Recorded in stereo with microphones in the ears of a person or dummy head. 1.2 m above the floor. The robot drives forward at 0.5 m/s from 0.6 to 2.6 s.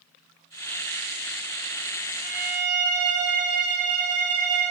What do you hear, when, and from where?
2.2 s a violin: 25° right (ahead or behind), 0.7 m